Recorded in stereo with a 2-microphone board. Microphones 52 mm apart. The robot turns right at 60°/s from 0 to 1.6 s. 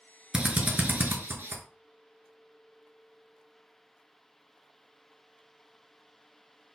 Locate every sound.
0.3 s a drill: 15° right (ahead or behind), 0.8 m; by 1.6 s 45° right (ahead or behind), 0.8 m